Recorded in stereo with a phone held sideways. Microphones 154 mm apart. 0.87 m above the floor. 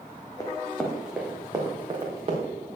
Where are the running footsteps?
25° left (ahead or behind), 2 m; by 2.5 s 40° right (ahead or behind), 3.5 m.